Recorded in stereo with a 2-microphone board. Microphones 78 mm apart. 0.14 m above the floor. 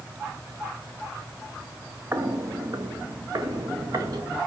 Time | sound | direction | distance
2.1 | footsteps | 35° right (ahead or behind) | 1.2 m